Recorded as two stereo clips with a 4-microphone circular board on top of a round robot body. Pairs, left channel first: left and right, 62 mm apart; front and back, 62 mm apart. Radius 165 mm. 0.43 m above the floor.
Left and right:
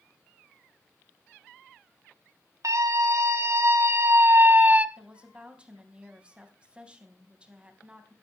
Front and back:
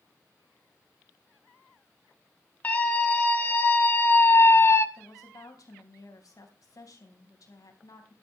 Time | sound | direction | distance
2.6 | a scream | 65° right | 4.5 m
5.0 | a woman speaking | 20° right | 3.5 m